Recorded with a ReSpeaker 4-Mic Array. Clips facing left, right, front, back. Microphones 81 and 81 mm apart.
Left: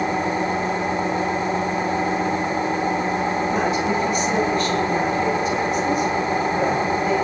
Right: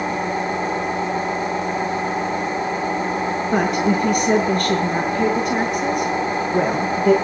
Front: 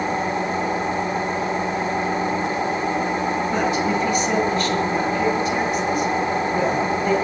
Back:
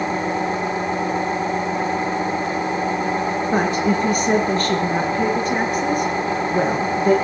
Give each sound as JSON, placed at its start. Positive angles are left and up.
{"t": 3.5, "sound": "a woman speaking", "azimuth_deg": -130, "distance_m": 7.0}